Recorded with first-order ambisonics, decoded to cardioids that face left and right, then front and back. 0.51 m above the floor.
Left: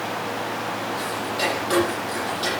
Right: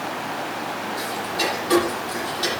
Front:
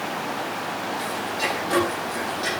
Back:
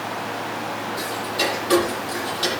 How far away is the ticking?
About 7 m.